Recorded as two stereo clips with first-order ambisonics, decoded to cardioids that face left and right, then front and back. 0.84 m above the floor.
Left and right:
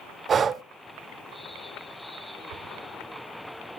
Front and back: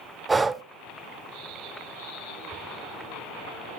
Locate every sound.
0.3 s breathing: 120° right, 0.5 m